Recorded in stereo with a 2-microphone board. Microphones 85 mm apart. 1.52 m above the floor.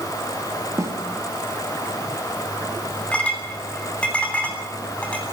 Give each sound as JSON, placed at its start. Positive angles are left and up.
{"t": 0.8, "sound": "a snare drum", "side_deg": -40, "distance_m": 1.8}
{"t": 3.1, "sound": "a clink", "side_deg": 15, "distance_m": 9.0}